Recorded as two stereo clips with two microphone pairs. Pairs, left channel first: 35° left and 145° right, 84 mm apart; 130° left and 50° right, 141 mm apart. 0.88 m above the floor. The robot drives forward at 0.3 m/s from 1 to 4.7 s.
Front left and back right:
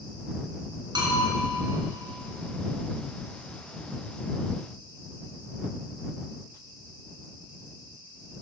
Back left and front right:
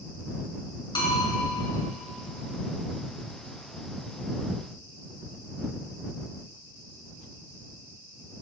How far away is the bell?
About 3 m.